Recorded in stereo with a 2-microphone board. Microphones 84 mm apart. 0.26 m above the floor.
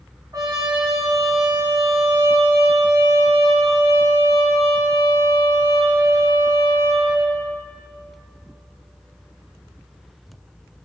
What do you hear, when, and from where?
0.3 s a trumpet: 50° right (ahead or behind), 2.5 m